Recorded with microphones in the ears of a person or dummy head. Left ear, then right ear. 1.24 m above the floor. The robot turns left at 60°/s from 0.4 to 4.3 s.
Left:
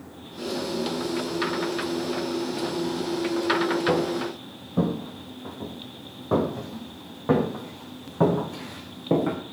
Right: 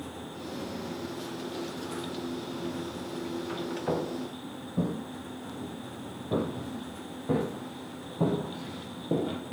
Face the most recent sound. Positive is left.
turn(degrees=60)  # may be behind; listen again after turning